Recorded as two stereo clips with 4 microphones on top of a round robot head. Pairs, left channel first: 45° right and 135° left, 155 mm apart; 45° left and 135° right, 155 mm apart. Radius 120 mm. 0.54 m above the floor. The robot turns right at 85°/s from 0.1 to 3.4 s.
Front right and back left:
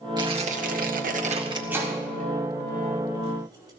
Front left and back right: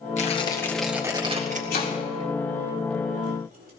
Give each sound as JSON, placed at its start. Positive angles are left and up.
{"t": 0.2, "sound": "tearing paper", "azimuth_deg": 75, "distance_m": 2.0}
{"t": 1.7, "sound": "chopping", "azimuth_deg": 55, "distance_m": 4.5}